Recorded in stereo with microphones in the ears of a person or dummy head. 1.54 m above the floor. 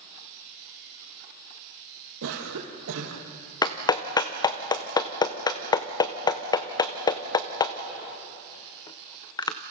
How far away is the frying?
No frying in this recording.